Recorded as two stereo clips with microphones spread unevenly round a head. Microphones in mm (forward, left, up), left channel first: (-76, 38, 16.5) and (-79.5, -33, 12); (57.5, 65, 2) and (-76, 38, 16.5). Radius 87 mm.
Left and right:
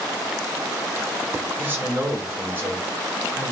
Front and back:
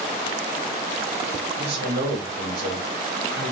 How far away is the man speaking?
About 3 m.